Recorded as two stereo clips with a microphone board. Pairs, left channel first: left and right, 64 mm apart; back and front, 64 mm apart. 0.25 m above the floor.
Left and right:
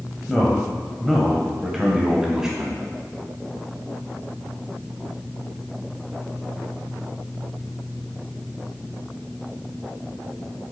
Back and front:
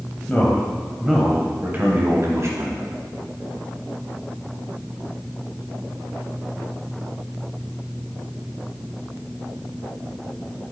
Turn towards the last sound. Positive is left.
turn(degrees=-15)